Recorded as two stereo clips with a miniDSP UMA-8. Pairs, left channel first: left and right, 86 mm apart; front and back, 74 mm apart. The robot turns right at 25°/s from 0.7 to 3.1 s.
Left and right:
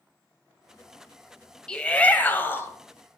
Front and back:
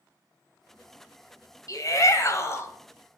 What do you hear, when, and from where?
1.7 s a shout: 15° left, 1.8 m; by 2.7 s 40° left, 1.8 m